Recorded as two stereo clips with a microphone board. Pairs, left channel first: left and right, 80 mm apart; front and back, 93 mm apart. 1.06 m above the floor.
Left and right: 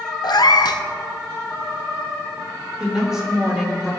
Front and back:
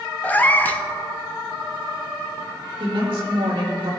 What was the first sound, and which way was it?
A cat meowing, 70° left.